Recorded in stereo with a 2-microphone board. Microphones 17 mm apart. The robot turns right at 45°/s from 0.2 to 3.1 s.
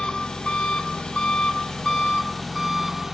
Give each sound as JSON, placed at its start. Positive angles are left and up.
{"t": 0.0, "sound": "an engine running", "azimuth_deg": 60, "distance_m": 0.8}